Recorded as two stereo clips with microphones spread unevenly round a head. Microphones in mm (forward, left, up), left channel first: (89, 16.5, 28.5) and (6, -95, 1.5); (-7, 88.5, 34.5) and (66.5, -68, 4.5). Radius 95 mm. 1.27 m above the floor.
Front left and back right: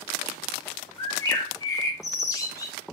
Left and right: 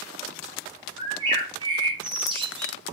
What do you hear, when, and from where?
1.0 s a bird: straight ahead, 0.6 m